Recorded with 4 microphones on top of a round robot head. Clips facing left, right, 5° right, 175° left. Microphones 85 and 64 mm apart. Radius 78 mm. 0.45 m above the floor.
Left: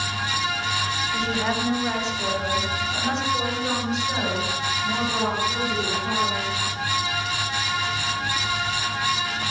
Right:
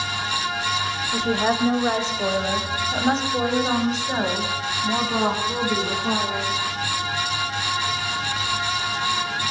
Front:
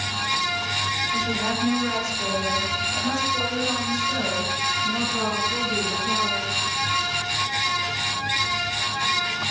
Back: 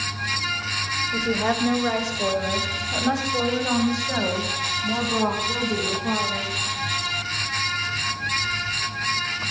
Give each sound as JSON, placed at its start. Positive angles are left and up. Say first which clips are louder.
{"t": 1.1, "sound": "a woman speaking", "louder": "right 5 dB, back 6 dB", "azimuth_deg": -130, "distance_m": 2.5}